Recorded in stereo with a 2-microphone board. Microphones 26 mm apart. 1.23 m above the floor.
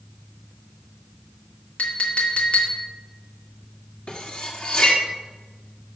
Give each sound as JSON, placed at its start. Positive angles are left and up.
{"t": 1.8, "sound": "a clink", "side_deg": 65, "distance_m": 2.0}
{"t": 4.1, "sound": "cutlery clinking", "side_deg": 45, "distance_m": 1.8}